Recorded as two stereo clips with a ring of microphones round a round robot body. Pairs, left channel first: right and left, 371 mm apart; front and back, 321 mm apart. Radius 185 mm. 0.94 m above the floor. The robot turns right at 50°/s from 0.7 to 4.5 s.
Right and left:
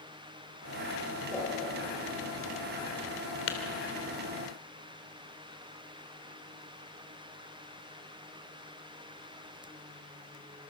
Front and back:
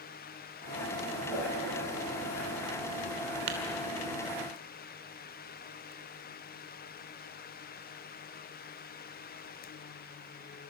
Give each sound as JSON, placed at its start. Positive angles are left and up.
{"t": 1.3, "sound": "a whoosh", "azimuth_deg": 180, "distance_m": 9.0}
{"t": 3.5, "sound": "tapping", "azimuth_deg": -150, "distance_m": 3.0}